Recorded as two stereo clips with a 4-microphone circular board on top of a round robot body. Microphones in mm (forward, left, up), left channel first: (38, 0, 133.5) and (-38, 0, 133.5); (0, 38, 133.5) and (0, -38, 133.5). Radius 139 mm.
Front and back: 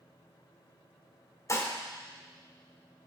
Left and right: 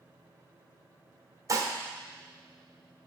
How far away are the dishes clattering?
About 1.2 m.